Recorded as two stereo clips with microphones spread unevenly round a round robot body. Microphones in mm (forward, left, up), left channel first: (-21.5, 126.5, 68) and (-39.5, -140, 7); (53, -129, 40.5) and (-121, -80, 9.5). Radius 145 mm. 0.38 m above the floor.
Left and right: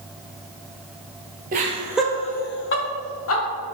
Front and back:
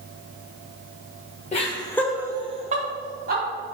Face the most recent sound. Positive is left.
turn(degrees=125)